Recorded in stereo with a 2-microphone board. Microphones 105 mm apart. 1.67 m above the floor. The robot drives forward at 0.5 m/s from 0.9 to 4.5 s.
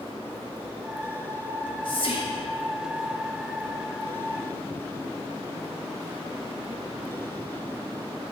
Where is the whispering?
45° left (ahead or behind), 1.0 m; by 2.5 s 65° left (ahead or behind), 0.8 m.